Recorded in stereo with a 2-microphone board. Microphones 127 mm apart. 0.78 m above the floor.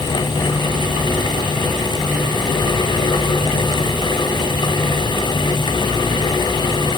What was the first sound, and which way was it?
Only background noise.